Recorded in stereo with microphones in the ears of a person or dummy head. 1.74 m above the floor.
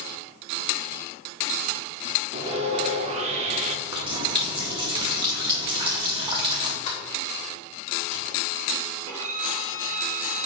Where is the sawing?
35° right (ahead or behind), 1.0 m.